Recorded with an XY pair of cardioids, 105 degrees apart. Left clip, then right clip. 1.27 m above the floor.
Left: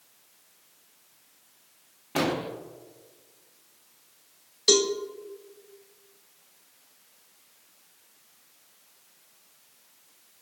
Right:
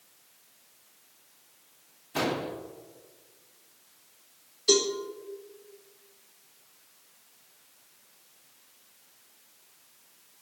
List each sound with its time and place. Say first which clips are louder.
2.1 s an explosion: left 2 dB; 50° left, 1.3 m
4.7 s a cowbell: left 2 dB; 70° left, 1.3 m